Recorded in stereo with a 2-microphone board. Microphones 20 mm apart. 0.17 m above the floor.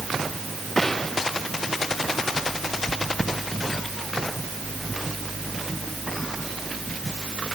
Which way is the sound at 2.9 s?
70° left (ahead or behind).